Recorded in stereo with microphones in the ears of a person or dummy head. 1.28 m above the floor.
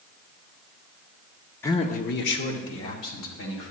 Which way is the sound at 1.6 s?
15° left (ahead or behind).